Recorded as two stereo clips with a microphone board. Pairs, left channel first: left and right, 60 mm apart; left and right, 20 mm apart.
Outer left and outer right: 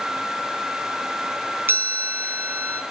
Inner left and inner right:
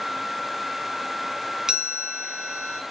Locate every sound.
1.7 s a chime: 35° right (ahead or behind), 1.8 m